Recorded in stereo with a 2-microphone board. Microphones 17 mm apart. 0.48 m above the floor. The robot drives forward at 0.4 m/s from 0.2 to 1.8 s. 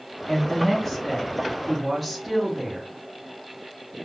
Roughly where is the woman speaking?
Centre.